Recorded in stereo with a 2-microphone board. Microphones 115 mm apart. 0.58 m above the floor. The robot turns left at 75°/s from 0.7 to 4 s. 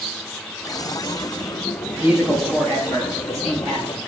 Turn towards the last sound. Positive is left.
turn(degrees=50)